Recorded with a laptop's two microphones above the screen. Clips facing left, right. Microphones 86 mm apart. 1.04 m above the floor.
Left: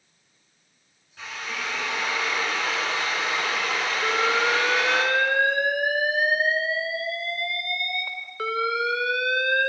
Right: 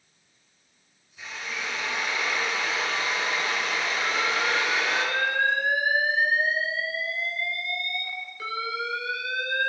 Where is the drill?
75° left (ahead or behind), 8.5 m.